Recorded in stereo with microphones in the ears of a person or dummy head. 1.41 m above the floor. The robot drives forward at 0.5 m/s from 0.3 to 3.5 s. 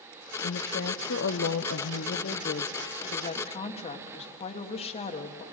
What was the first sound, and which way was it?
A woman speaking, 45° left (ahead or behind).